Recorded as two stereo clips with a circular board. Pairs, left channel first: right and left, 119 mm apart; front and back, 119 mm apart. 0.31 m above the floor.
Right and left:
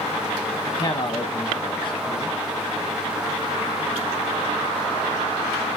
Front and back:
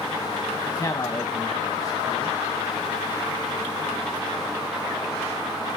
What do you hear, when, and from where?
0.7 s a man speaking: 55° right, 1.8 m